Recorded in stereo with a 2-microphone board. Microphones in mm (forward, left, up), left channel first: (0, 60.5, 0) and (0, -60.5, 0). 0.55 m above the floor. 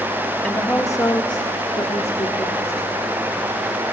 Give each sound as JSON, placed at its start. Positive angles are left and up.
{"t": 0.4, "sound": "a woman speaking", "side_deg": 10, "distance_m": 1.3}